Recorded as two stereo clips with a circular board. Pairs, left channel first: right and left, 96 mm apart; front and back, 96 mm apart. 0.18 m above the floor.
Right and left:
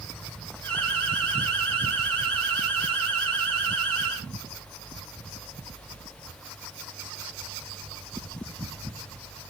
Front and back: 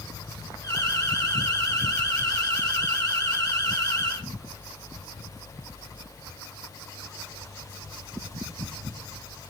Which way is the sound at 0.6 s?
30° right.